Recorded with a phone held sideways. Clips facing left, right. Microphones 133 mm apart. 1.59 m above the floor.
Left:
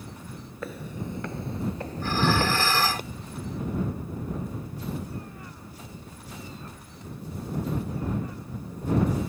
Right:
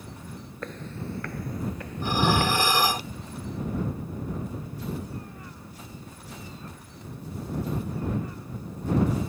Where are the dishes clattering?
15° right (ahead or behind).